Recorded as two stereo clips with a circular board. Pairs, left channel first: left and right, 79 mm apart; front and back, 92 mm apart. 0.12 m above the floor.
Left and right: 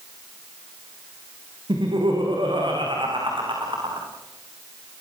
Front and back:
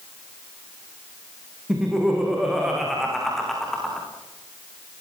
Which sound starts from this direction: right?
Laughter, at 1.7 s.